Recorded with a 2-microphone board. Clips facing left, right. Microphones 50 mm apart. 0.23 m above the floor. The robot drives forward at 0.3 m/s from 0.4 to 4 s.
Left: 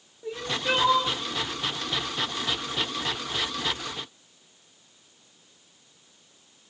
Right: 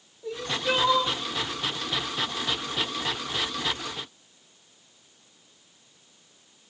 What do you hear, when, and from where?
0.2 s crying: 20° left (ahead or behind), 0.6 m; by 1.2 s 15° left (ahead or behind), 0.8 m